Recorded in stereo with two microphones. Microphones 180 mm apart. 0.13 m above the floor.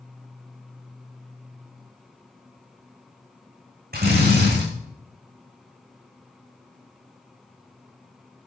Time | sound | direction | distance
3.9 | a drill | 55° right (ahead or behind) | 7.5 m